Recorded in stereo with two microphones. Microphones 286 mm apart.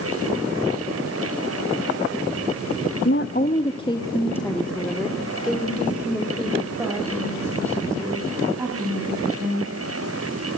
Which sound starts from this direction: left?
A woman speaking, at 3.0 s.